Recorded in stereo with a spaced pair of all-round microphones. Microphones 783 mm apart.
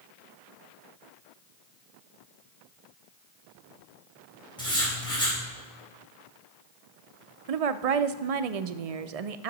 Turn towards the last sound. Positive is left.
turn(degrees=-55)  # may be behind; listen again after turning